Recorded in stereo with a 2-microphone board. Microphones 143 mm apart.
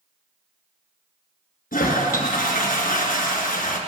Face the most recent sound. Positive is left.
turn(degrees=90)